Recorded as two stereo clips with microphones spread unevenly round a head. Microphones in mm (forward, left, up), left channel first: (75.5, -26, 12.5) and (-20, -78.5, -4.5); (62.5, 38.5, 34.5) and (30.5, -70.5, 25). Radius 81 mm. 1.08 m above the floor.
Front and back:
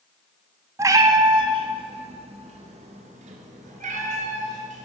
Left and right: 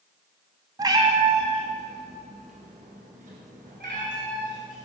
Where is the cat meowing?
110° right, 1.0 m; by 4.9 s 145° right, 3 m.